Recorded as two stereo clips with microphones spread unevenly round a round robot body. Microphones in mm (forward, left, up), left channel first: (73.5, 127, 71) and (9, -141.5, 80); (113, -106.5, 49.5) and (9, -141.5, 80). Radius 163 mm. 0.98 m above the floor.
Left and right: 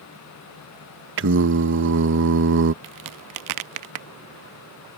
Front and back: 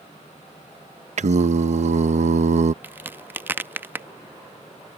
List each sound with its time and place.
1.2 s singing: 150° right
2.8 s a crack: 90° right